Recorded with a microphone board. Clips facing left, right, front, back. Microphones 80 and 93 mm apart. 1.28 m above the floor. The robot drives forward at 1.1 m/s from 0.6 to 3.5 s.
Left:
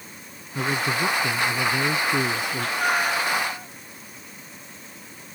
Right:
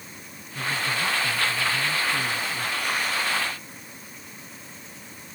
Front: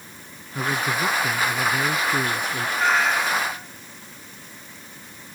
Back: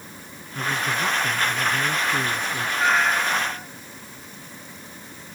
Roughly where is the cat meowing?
Left.